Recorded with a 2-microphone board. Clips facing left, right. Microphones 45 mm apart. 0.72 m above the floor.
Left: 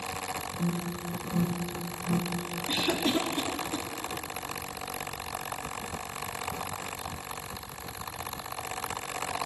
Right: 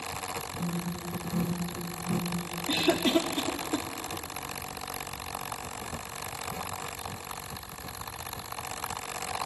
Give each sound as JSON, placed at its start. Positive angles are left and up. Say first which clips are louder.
{"t": 0.6, "sound": "an alarm", "louder": "left 3 dB", "side_deg": 60, "distance_m": 6.5}
{"t": 2.7, "sound": "a cough", "louder": "right 3 dB", "side_deg": -40, "distance_m": 1.3}